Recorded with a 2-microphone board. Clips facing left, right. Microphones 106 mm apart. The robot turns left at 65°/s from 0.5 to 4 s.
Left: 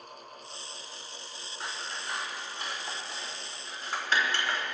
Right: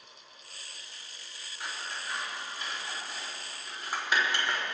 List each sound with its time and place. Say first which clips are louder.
1.6 s scissors: left 1 dB; 35° left (ahead or behind), 6 m; by 4.6 s 15° right (ahead or behind), 6 m